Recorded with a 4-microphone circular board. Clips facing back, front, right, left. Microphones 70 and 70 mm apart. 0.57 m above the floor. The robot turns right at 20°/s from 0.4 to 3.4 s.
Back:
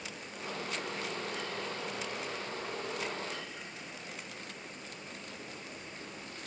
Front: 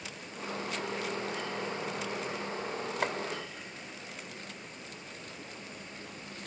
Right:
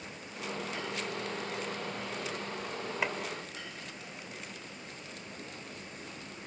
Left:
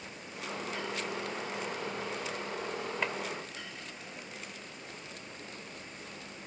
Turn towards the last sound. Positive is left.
turn(degrees=0)